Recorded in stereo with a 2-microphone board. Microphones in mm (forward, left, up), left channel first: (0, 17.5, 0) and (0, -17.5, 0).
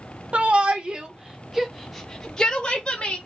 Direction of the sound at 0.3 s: 40° right (ahead or behind).